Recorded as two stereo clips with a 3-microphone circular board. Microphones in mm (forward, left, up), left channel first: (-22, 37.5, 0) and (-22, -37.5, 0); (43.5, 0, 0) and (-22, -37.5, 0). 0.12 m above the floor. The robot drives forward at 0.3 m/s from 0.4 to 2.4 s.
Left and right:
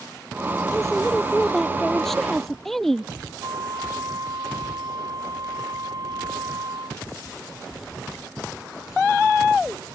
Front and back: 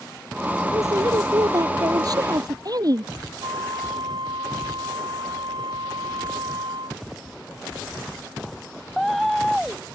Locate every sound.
0.7 s a woman speaking: 175° left
3.4 s a flute: 130° right